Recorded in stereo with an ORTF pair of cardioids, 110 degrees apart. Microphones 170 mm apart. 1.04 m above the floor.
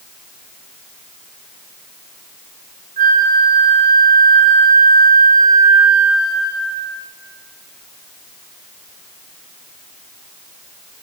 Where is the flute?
55° right, 5.5 m.